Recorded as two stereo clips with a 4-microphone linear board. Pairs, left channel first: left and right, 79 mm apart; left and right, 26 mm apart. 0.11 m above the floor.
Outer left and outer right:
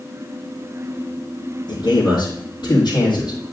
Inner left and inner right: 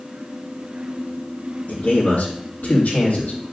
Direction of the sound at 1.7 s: 65° left (ahead or behind).